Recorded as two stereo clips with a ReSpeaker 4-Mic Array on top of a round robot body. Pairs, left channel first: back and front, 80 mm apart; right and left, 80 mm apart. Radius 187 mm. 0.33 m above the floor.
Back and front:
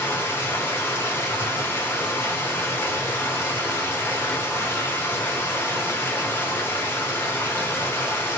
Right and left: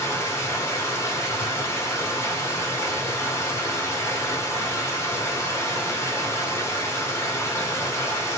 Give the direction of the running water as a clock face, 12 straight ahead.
4 o'clock.